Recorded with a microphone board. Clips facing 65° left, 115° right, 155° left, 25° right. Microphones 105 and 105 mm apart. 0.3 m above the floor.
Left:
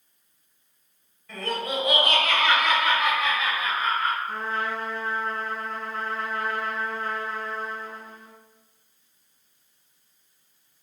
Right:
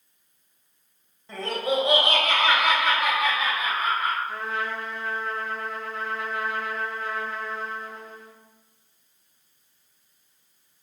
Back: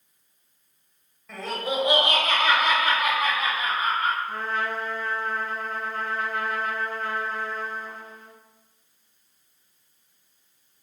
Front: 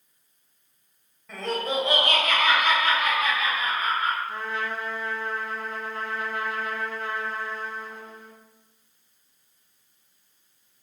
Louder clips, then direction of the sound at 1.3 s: Right 3 dB, front 1 dB; 110° right.